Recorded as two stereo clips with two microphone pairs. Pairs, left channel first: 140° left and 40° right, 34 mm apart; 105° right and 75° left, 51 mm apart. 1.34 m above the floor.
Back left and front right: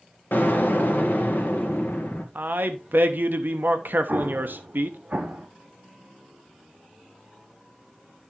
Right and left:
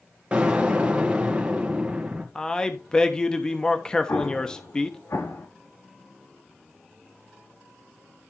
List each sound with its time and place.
0.3 s an explosion: 145° left, 1.6 m
2.4 s a man speaking: 30° right, 1.0 m
4.1 s an explosion: 80° right, 2 m